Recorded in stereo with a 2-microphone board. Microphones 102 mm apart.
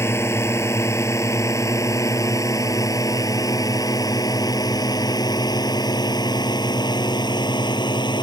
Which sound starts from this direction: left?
A drone, at 0.0 s.